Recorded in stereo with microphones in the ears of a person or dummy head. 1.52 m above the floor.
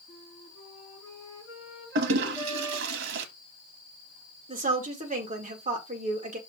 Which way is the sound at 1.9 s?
65° right (ahead or behind).